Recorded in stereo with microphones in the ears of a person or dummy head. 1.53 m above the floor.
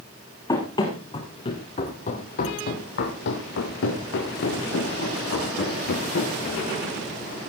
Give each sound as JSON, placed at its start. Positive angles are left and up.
{"t": 0.5, "sound": "running footsteps", "side_deg": 20, "distance_m": 4.5}